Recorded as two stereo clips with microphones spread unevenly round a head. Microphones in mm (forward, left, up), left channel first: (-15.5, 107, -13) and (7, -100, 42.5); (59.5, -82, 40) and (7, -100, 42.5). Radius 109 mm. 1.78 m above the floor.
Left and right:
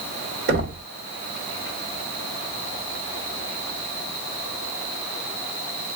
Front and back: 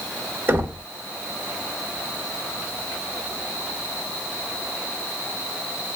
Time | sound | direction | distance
0.5 | knocking | 110° right | 2.0 m